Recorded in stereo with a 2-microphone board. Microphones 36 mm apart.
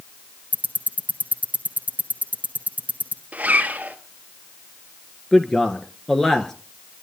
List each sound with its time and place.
0.5 s ticking: 45° right (ahead or behind), 2 m
3.3 s a zipper: 45° right (ahead or behind), 1.4 m
5.3 s a man speaking: 15° left (ahead or behind), 1.6 m